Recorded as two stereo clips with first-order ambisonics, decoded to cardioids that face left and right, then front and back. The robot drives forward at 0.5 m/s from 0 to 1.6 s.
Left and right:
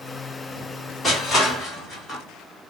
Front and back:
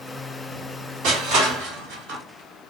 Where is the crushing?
165° left, 1.7 m; by 2.2 s 170° left, 2 m.